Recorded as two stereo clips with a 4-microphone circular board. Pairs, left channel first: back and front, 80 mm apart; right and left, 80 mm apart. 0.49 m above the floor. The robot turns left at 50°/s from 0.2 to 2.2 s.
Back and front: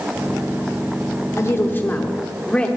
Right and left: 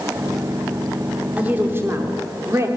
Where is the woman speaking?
150° left, 1.1 m; by 2.7 s 110° left, 1.1 m.